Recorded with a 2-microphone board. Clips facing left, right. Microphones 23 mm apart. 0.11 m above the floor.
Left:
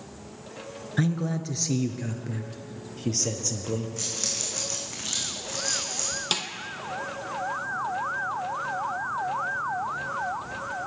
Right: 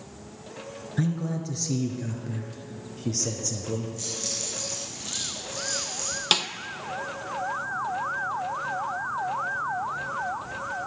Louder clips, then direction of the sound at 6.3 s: Right 6 dB; 25° right (ahead or behind).